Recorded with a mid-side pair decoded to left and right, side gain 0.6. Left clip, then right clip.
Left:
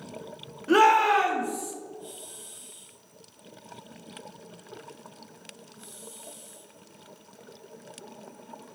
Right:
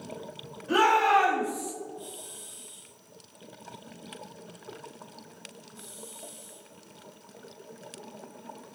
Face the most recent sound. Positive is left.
turn(degrees=45)